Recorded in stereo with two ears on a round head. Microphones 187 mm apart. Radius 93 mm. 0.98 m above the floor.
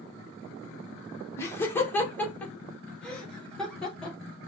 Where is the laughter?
15° left (ahead or behind), 1.0 m; by 4.2 s 5° left (ahead or behind), 2.5 m.